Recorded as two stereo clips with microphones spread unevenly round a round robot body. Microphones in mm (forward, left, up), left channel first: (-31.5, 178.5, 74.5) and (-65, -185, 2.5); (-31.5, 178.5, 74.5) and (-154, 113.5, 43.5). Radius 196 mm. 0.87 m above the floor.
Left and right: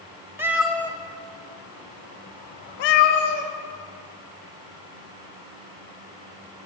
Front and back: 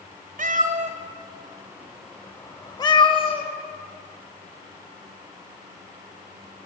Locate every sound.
0.4 s a cat meowing: 175° left, 1.1 m; by 3.5 s 70° left, 1.5 m